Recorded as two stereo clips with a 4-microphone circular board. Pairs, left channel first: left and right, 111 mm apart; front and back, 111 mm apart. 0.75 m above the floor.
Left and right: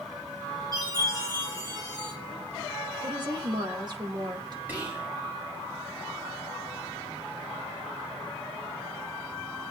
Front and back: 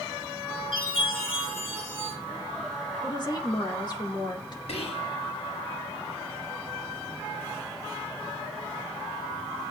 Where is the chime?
35° right, 9.5 m.